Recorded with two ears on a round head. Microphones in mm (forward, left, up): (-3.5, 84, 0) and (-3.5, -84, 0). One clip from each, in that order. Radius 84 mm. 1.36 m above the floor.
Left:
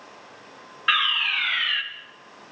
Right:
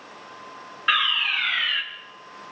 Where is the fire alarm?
5° left (ahead or behind), 1.5 m.